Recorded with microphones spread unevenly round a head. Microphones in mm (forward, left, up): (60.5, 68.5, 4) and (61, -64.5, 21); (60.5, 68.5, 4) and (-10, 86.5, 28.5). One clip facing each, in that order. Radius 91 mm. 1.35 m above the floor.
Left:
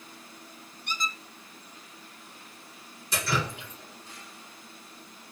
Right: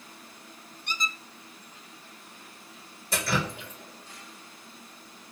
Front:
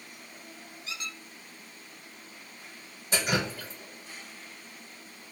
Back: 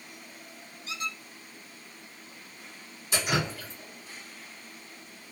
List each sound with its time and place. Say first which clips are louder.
0.9 s a squeak: left 1 dB, back 5 dB; 25° right, 1.0 m
3.1 s dripping: right 1 dB, even; 95° right, 1.6 m